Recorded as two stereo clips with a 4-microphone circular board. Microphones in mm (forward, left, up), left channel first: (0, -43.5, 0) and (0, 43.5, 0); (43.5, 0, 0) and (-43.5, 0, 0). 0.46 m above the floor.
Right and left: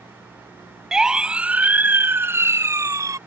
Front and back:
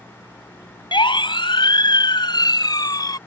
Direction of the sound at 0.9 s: 5° left.